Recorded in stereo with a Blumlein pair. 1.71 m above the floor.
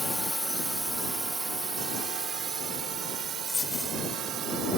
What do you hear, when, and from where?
0.0 s a drone: 5° left; by 4.8 s 30° right
3.5 s a dropped coin: 10° left